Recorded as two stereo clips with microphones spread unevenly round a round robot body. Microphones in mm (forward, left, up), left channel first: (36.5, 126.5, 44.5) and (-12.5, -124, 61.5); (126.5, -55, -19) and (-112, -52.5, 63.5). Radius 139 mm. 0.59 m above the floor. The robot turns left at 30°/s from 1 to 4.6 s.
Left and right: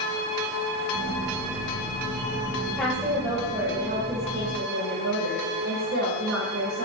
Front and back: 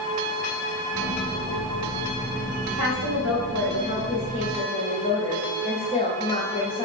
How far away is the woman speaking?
About 3 m.